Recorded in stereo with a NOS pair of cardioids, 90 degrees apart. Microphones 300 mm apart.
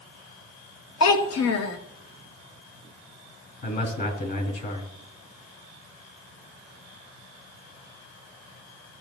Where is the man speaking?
40° left, 3 m.